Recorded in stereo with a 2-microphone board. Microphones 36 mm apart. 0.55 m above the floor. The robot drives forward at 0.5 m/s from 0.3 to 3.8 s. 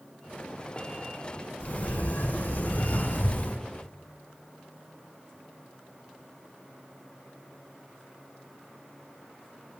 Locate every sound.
1.6 s a sliding door: 60° left (ahead or behind), 8 m; by 3.6 s 65° left (ahead or behind), 7.5 m